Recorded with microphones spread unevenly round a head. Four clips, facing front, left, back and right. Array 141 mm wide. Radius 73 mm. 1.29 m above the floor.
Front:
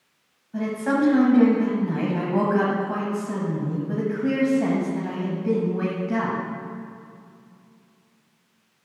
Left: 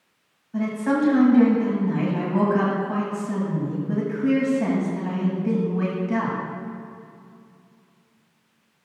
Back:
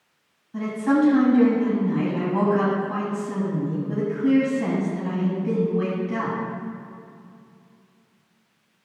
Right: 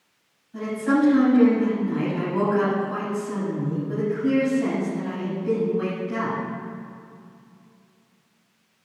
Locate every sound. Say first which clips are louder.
0.5 s a woman speaking: right 1 dB, back 2 dB; 25° left, 7 m